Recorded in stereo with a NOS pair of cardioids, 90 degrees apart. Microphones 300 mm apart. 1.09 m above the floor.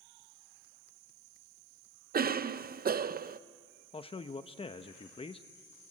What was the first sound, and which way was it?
A cough, 30° right.